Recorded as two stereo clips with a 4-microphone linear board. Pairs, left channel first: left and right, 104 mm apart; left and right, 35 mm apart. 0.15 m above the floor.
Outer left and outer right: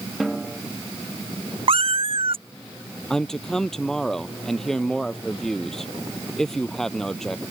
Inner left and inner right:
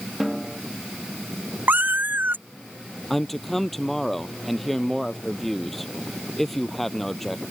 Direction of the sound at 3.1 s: 5° left (ahead or behind).